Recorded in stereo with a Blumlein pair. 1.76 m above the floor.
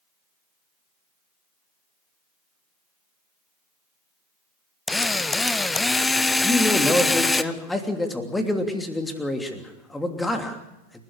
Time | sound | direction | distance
4.9 | a drill | 10° left | 0.7 m
6.4 | a man speaking | 10° left | 3 m